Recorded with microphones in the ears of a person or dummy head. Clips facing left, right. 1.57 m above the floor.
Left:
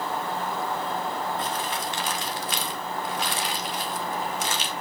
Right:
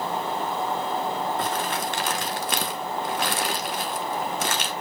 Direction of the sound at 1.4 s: 45° right (ahead or behind).